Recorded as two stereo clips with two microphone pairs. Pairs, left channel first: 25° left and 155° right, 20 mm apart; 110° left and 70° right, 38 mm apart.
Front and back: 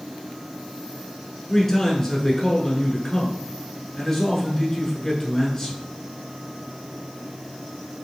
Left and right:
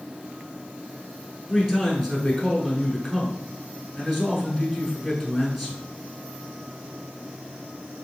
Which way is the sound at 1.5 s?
15° left.